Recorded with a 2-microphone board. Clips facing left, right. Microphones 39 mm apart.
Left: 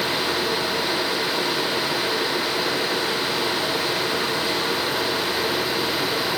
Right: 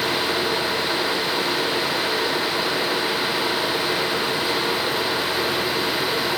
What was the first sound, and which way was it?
Only background noise.